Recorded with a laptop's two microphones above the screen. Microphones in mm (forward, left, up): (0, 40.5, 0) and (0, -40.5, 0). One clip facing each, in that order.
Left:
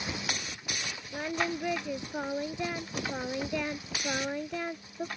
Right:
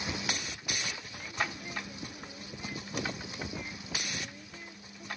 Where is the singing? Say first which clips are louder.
Left 6 dB; 75° left (ahead or behind).